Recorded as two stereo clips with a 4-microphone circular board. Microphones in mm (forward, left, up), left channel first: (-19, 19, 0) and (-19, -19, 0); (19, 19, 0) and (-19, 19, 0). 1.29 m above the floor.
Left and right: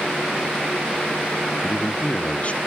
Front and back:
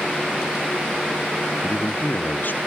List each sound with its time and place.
1.6 s a man speaking: 35° left, 0.9 m